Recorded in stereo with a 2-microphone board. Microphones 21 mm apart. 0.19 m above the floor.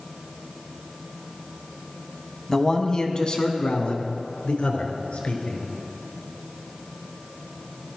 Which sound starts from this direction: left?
A man speaking, at 2.5 s.